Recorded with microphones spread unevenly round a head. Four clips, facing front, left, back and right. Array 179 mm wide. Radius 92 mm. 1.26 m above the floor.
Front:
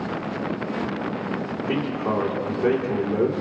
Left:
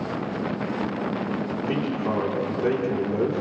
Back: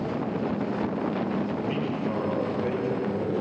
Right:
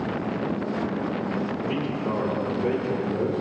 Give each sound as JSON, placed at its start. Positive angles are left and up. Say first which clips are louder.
{"t": 1.7, "sound": "a man speaking", "louder": "left 2 dB, front 4 dB", "azimuth_deg": 20, "distance_m": 4.5}